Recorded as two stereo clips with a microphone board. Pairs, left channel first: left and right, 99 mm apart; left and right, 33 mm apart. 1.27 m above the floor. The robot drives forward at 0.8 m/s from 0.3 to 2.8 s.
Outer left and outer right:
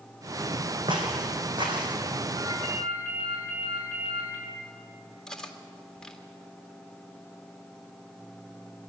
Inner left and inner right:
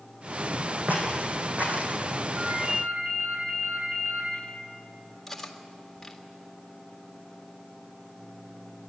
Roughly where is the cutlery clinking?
Centre.